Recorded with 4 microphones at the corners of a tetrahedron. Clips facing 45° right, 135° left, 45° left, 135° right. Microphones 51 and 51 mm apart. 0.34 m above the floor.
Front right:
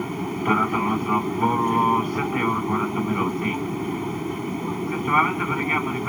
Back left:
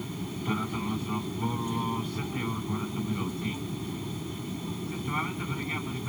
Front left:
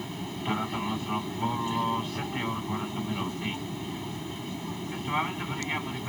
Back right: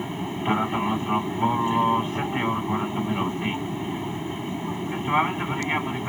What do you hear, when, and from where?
0.0 s an aircraft: 75° right